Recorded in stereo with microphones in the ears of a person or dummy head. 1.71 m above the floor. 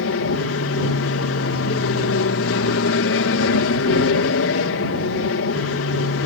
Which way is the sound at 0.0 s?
65° left (ahead or behind).